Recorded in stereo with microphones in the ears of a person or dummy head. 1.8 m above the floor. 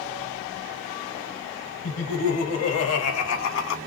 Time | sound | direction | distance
1.8 | laughter | 85° left | 2.5 m